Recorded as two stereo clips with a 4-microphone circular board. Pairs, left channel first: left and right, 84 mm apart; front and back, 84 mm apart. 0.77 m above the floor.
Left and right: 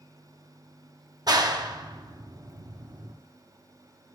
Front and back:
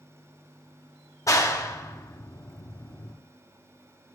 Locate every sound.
1.3 s a clap: 50° right, 0.7 m